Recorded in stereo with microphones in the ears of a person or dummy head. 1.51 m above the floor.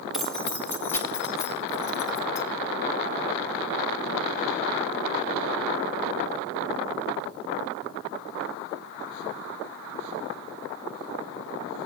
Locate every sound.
0.1 s keys jangling: 5° right (ahead or behind), 0.6 m; by 2.4 s 15° left (ahead or behind), 1.7 m